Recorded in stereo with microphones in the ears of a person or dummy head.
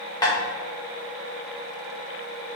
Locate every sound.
0.2 s tapping: 20° left (ahead or behind), 1.0 m